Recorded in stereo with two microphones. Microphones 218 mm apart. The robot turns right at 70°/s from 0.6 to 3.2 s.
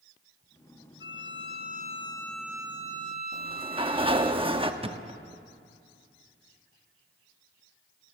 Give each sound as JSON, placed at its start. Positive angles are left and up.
{"t": 1.0, "sound": "a violin", "azimuth_deg": 85, "distance_m": 1.2}
{"t": 3.3, "sound": "a sliding door", "side_deg": -25, "distance_m": 1.0}
{"t": 4.8, "sound": "a thud", "side_deg": -25, "distance_m": 0.8}